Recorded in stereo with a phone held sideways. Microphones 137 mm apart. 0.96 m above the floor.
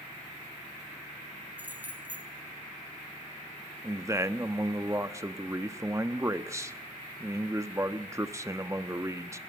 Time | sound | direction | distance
1.6 | keys jangling | 15° right (ahead or behind) | 3.5 m
3.8 | a man speaking | 20° right (ahead or behind) | 1.1 m